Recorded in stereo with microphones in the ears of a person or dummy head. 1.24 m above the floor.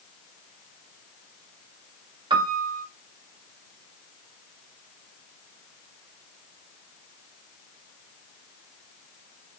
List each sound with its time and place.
2.3 s a piano: 35° right (ahead or behind), 1.1 m